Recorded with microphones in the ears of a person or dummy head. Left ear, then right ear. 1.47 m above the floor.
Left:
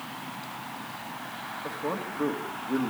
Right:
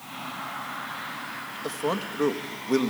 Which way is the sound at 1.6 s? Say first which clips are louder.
Right 4 dB; 85° right.